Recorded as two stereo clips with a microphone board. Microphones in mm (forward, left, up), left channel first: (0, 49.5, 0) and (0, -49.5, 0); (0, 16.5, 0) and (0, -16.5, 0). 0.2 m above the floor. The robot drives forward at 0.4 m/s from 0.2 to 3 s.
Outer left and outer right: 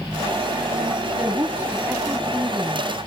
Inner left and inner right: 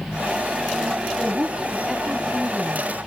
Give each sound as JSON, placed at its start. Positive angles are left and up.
{"t": 1.2, "sound": "a woman speaking", "side_deg": -20, "distance_m": 1.3}